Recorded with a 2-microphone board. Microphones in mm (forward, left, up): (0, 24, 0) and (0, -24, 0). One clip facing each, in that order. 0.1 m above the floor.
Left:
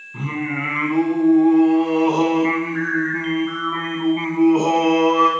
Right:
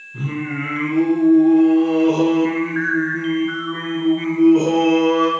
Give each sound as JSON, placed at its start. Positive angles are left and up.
{"t": 0.1, "sound": "singing", "side_deg": 55, "distance_m": 4.0}